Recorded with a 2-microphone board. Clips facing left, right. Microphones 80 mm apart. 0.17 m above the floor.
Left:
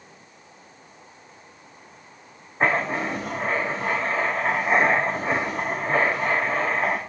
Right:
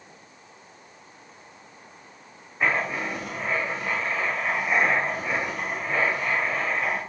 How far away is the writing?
About 4.5 m.